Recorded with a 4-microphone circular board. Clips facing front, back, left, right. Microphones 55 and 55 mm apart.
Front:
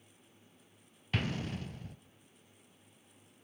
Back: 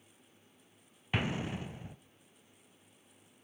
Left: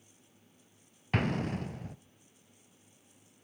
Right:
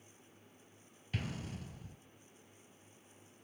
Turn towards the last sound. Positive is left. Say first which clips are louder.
# back 2 dB, left 12 dB
turn(degrees=110)